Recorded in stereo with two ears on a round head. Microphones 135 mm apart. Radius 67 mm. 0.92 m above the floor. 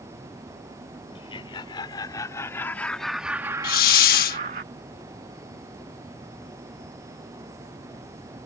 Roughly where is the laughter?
Left.